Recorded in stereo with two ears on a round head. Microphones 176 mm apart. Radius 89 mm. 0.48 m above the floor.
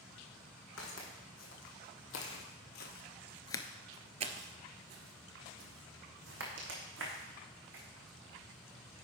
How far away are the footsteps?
About 2.0 m.